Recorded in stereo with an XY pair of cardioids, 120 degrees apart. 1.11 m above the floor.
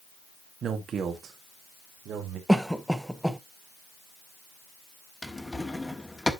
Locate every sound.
0.6 s a man speaking: 45° right, 1.5 m; by 2.4 s 60° right, 2.5 m
2.5 s a cough: straight ahead, 1.1 m
5.2 s a drawer: 10° left, 1.2 m